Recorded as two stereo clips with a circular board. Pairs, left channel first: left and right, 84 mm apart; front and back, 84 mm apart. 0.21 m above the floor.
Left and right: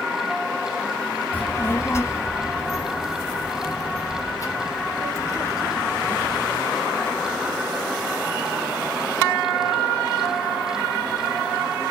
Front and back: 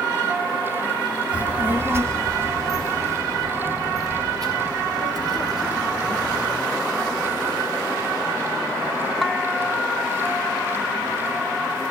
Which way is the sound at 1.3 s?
120° left.